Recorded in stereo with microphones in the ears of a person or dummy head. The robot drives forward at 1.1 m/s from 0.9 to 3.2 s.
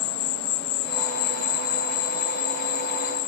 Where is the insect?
65° left (ahead or behind); by 3.3 s 45° left (ahead or behind).